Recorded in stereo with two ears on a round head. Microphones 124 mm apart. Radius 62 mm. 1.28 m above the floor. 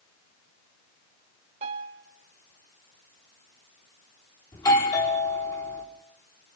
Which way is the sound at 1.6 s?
50° right (ahead or behind).